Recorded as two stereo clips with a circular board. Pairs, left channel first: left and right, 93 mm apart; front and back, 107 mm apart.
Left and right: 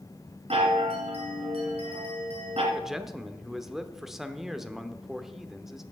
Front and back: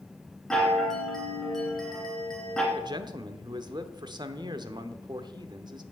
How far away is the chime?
About 2.5 m.